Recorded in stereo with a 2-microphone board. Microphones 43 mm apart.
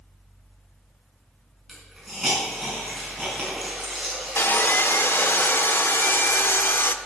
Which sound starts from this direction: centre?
A hiss, at 1.7 s.